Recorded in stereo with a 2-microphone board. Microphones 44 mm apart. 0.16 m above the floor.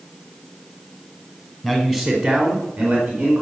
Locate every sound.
1.6 s a man speaking: 5° left (ahead or behind), 1.4 m; by 3.4 s 30° right (ahead or behind), 2 m